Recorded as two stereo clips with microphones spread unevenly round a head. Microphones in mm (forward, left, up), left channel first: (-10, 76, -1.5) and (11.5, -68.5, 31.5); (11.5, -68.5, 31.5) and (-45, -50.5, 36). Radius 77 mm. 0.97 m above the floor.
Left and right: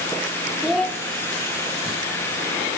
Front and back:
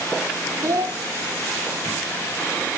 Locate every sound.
0.6 s a child speaking: 170° right, 1.3 m